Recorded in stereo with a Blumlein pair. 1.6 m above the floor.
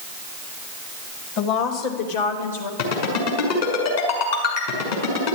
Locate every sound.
1.4 s a woman speaking: 40° left, 2.5 m; by 2.7 s 70° left, 3.5 m
2.8 s a ringtone: 60° left, 6 m